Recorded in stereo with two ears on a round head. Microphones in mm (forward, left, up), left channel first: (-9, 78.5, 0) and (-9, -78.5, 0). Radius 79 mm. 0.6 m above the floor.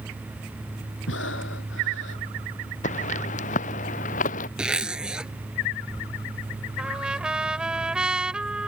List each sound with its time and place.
1.1 s breathing: 85° left
2.8 s footsteps: 50° left (ahead or behind)
4.6 s a zipper: 5° right (ahead or behind)
6.8 s a trumpet: 5° right (ahead or behind)